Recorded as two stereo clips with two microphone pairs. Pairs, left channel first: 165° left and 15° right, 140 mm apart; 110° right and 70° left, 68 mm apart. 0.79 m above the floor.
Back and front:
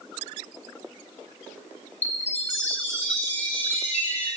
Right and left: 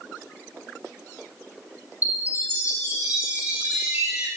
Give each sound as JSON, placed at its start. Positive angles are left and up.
{"t": 2.0, "sound": "a chime", "azimuth_deg": 130, "distance_m": 4.5}